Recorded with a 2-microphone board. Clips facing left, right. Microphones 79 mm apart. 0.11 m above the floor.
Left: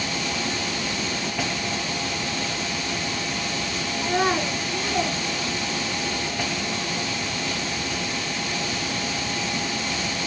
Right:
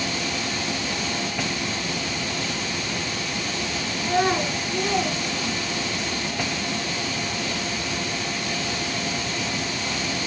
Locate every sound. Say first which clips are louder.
4.0 s a child speaking: right 1 dB; 25° left (ahead or behind), 0.9 m; by 6.1 s 40° right (ahead or behind), 1.1 m